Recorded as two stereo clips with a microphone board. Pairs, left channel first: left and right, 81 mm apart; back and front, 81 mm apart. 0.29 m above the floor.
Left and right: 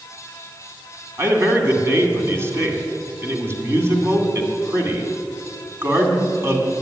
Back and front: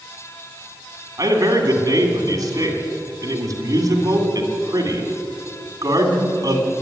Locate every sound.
1.2 s a man speaking: 35° right, 2 m